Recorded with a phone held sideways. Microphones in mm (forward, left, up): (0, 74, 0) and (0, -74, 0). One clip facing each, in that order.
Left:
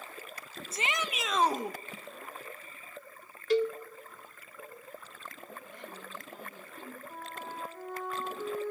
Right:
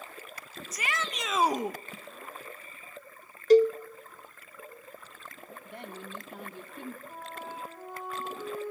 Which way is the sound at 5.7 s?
65° right (ahead or behind).